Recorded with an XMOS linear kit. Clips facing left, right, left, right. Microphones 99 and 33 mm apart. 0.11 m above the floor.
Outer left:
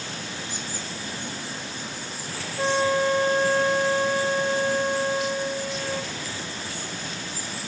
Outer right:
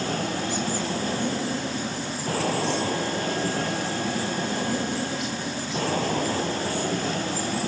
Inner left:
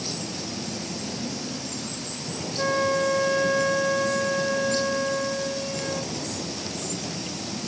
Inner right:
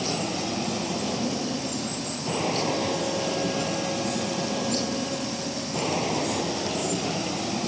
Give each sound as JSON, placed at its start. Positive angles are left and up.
{"t": 0.0, "sound": "an aircraft", "side_deg": -50}
{"t": 2.6, "sound": "a flute", "side_deg": 60}